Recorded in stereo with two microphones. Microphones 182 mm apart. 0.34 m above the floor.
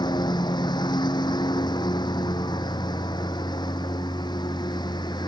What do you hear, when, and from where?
0.0 s a lawn mower: 25° left (ahead or behind)